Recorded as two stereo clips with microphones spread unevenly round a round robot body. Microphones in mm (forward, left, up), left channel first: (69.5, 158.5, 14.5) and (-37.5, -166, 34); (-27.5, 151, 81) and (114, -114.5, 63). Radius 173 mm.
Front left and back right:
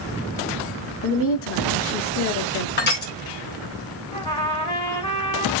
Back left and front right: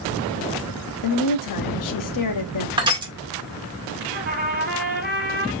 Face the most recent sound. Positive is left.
turn(degrees=-5)